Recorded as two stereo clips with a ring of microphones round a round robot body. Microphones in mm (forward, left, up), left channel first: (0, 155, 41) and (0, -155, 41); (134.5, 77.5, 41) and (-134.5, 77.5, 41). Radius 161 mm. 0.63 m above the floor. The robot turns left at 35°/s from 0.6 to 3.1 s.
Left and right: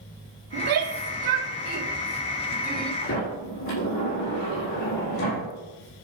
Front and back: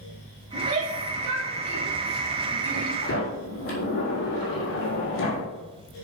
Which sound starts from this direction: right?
A shout, at 0.5 s.